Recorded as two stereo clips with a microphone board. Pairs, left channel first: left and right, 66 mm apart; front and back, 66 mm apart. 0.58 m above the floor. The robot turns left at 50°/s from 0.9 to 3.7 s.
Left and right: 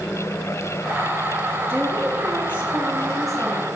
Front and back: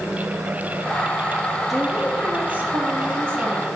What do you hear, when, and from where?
1.7 s a woman speaking: 100° right, 0.9 m; by 3.7 s 160° left, 0.9 m